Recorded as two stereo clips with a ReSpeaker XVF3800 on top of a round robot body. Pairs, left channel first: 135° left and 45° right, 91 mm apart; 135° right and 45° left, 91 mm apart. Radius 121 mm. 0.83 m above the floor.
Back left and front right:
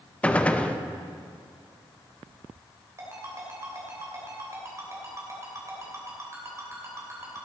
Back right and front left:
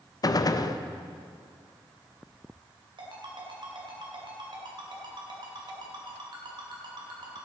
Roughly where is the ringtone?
Ahead.